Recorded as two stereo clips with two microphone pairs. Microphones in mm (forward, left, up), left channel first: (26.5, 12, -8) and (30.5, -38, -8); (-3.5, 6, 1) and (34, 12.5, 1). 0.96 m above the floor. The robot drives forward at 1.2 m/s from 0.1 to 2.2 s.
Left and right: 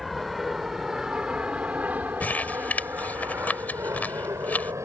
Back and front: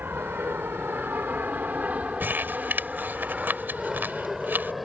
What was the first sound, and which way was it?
An aircraft, straight ahead.